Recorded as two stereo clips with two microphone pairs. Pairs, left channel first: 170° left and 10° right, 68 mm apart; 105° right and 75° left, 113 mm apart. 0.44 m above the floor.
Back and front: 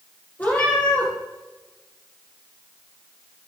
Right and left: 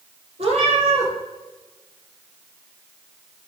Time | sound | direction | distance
0.4 | a cat meowing | 105° left | 4 m